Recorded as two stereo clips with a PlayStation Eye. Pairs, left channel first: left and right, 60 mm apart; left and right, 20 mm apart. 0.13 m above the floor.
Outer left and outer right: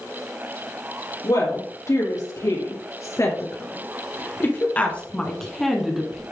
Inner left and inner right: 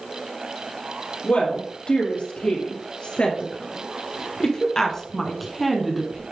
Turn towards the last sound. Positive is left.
turn(degrees=-15)  # may be behind; listen again after turning